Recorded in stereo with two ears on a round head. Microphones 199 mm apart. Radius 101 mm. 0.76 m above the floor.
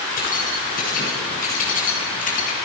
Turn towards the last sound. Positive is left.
turn(degrees=40)  # may be behind; listen again after turning